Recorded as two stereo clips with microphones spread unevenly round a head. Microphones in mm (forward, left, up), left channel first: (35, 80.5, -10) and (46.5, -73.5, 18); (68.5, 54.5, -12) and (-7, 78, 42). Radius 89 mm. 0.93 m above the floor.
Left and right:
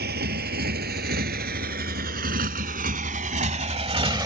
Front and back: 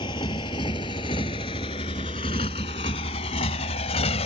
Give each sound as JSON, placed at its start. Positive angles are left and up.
{"t": 0.0, "sound": "a motorcycle", "azimuth_deg": -70}